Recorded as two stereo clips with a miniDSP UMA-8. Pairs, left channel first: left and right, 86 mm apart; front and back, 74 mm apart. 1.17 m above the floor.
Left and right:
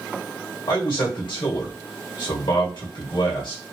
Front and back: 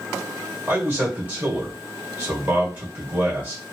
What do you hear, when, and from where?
0.7 s a man speaking: 115° left, 1.5 m